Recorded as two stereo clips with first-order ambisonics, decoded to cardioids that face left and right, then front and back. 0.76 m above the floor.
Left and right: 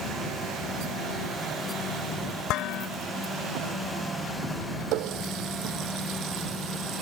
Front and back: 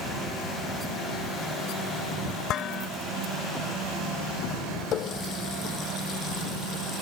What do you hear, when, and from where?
2.5 s dishes clattering: 50° left
4.9 s a running tap: 55° right